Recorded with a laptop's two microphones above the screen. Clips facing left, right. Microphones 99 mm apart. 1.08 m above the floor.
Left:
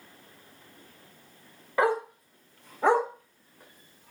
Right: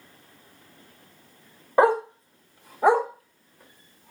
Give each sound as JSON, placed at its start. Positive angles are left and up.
{"t": 1.8, "sound": "a dog barking", "side_deg": -35, "distance_m": 0.9}